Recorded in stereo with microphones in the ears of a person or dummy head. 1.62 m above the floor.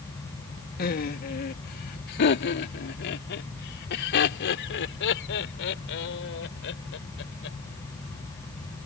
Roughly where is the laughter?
Left.